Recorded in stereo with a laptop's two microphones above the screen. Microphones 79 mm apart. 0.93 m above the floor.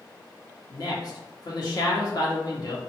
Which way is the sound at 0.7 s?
50° left (ahead or behind).